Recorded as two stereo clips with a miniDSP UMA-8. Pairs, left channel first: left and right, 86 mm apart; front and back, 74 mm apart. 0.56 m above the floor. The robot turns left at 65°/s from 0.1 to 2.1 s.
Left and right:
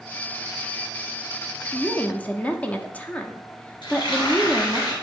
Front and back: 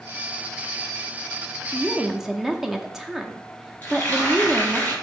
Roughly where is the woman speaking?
Behind left.